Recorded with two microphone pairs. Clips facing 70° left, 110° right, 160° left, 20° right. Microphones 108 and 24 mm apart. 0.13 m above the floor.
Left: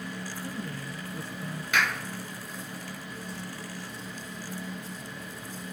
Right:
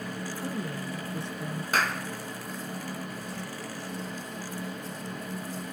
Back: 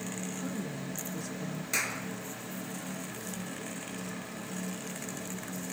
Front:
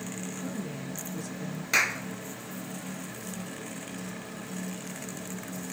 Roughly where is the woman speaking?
Behind right.